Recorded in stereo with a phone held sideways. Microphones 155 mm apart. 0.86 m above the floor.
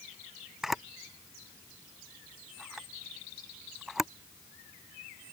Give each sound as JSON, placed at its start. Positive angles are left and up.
{"t": 0.6, "sound": "a camera shutter", "side_deg": 0}